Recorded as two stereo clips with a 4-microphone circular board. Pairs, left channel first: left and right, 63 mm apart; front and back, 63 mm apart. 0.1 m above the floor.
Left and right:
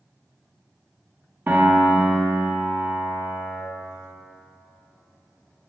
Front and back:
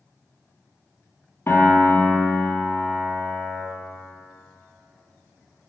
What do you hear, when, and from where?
1.5 s a piano: 40° right, 1.8 m